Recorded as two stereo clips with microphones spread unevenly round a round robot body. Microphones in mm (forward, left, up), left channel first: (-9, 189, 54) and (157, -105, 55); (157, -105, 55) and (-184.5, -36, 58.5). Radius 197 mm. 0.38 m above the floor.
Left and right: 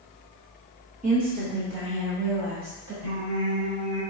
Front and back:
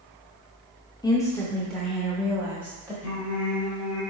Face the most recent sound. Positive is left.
turn(degrees=-35)